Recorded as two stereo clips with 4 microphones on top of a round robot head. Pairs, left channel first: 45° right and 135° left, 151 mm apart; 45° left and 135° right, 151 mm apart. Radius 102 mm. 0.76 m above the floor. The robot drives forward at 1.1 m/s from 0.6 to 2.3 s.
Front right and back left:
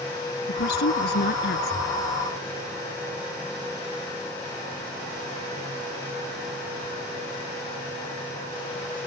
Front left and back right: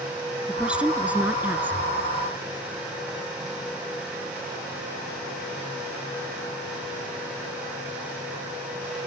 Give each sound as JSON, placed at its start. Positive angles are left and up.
{"t": 0.5, "sound": "a woman speaking", "azimuth_deg": -55}